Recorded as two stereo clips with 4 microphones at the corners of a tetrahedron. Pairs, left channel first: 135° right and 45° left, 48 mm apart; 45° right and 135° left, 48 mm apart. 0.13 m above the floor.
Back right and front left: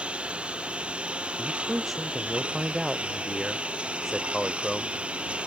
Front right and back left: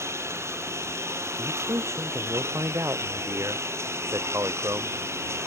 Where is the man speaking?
135° left.